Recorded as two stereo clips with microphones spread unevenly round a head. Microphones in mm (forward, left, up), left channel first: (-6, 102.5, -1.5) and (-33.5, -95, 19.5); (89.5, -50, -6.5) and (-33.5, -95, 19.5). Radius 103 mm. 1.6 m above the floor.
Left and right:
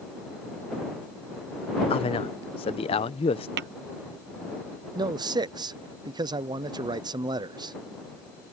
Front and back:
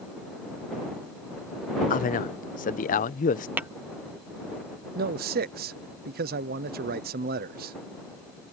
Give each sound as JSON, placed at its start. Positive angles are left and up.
{"t": 1.9, "sound": "a man speaking", "azimuth_deg": 20}
{"t": 3.6, "sound": "tapping", "azimuth_deg": -95}
{"t": 5.0, "sound": "a man speaking", "azimuth_deg": -170}